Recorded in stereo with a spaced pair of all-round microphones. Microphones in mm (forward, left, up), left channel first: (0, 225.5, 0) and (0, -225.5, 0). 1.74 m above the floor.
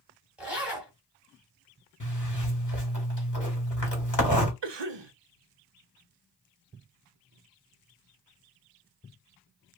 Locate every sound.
0.4 s a zipper: centre (ahead or behind), 2 m
2.0 s a zipper: 40° left (ahead or behind), 1.4 m
4.6 s a cough: 65° right (ahead or behind), 0.6 m